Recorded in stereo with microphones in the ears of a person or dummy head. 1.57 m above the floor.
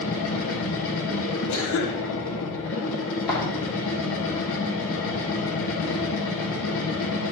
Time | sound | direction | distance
0.0 | a machine running | 70° left (ahead or behind) | 1.4 m
1.5 | a cough | 70° left (ahead or behind) | 1.2 m
3.3 | footsteps | 20° left (ahead or behind) | 3.5 m